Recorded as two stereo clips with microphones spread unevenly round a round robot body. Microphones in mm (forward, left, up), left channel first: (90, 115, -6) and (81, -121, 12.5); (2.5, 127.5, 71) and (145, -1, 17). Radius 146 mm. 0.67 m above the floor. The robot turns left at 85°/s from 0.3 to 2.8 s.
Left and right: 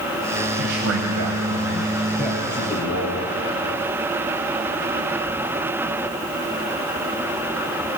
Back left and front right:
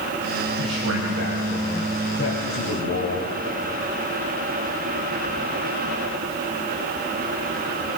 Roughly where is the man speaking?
Ahead right.